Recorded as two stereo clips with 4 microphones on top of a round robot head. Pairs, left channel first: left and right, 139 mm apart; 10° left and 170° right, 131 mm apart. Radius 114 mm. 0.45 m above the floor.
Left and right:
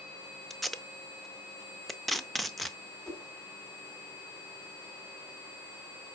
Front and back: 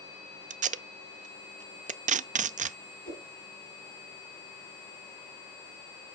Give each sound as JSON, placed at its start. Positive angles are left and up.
{"t": 0.5, "sound": "tape being pulled", "azimuth_deg": 180, "distance_m": 0.5}
{"t": 3.0, "sound": "a whoosh", "azimuth_deg": 5, "distance_m": 5.0}